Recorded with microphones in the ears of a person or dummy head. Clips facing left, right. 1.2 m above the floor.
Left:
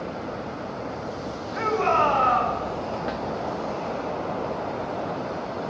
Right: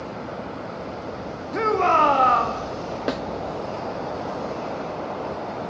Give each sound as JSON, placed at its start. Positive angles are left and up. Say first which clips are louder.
{"t": 1.5, "sound": "a shout", "louder": "right 3 dB", "side_deg": -55, "distance_m": 1.7}
{"t": 3.1, "sound": "a snare drum", "louder": "right 4 dB", "side_deg": -75, "distance_m": 0.7}